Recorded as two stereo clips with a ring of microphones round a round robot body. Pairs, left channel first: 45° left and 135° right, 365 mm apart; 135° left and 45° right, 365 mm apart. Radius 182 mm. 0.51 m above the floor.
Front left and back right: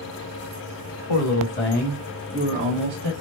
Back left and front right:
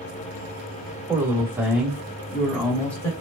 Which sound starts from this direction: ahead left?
A man speaking, at 1.1 s.